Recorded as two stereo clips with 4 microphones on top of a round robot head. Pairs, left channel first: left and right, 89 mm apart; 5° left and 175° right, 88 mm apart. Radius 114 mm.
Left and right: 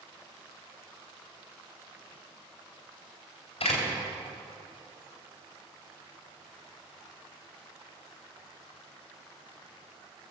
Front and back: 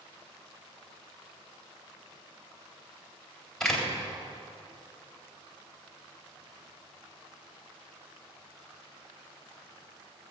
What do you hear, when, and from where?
3.6 s a door slam: 90° left, 3.5 m